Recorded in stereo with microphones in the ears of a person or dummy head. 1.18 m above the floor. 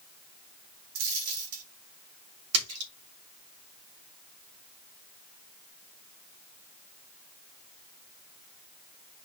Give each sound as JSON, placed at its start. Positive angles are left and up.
{"t": 0.9, "sound": "a dropped coin", "side_deg": -80, "distance_m": 5.0}
{"t": 2.5, "sound": "a splash", "side_deg": -85, "distance_m": 3.0}